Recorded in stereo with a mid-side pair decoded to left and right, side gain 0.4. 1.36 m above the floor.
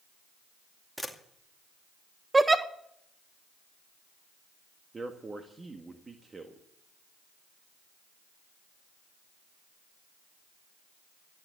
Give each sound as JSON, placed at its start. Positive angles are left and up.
{"t": 1.0, "sound": "a camera shutter", "azimuth_deg": 0, "distance_m": 2.5}
{"t": 2.3, "sound": "a giggle", "azimuth_deg": -20, "distance_m": 1.4}
{"t": 4.9, "sound": "a man speaking", "azimuth_deg": -30, "distance_m": 1.7}